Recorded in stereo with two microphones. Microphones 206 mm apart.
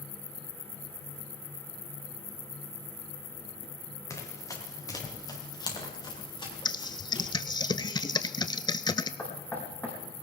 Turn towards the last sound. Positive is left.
turn(degrees=10)  # may be behind; listen again after turning